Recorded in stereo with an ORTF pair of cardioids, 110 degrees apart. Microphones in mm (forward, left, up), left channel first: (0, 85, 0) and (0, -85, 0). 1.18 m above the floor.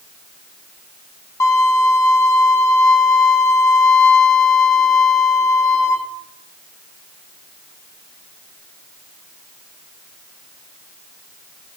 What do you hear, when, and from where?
1.4 s a violin: 20° left, 0.5 m